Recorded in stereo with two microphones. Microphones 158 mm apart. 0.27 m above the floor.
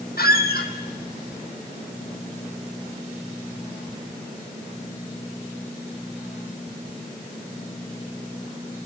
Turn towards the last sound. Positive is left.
turn(degrees=80)